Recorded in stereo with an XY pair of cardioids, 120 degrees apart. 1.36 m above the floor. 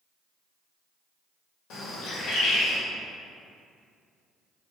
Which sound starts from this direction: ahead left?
A bird, at 1.7 s.